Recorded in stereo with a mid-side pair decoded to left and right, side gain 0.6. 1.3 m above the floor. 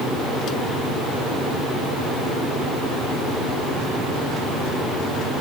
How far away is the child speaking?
I don't hear a child speaking.